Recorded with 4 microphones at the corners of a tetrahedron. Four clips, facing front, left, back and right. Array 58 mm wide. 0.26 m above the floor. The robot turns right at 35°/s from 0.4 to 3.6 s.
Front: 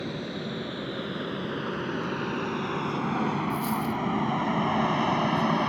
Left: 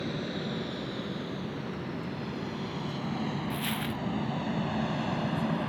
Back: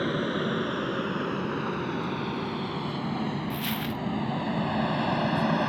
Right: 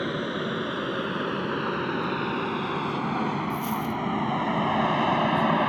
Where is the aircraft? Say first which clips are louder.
Right 6 dB, back 6 dB; 130° right; by 5.7 s 85° right.